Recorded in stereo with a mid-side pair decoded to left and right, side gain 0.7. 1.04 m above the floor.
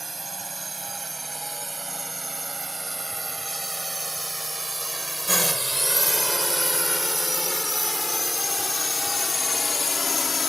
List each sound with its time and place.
0.0 s a drone: 15° right; by 10.5 s 25° left